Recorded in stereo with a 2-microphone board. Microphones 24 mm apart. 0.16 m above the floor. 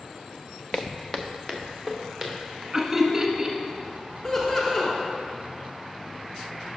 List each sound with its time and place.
0.7 s footsteps: 45° left (ahead or behind), 0.6 m; by 2.6 s centre (ahead or behind), 2.5 m
2.7 s laughter: 10° right (ahead or behind), 1.3 m
4.2 s laughter: 20° left (ahead or behind), 1.4 m